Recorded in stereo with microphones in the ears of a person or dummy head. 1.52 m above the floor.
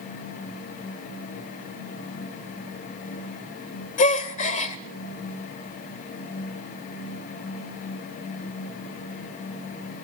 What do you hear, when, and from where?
4.0 s a gasp: 35° left (ahead or behind), 2 m